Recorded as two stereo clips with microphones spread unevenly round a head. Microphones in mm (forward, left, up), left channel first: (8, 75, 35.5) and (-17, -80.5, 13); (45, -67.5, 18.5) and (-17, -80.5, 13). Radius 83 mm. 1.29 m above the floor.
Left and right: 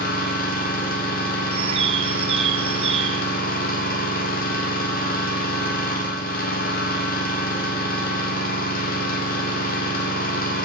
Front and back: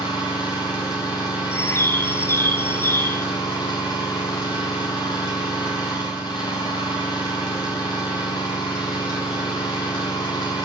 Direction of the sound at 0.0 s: 45° left.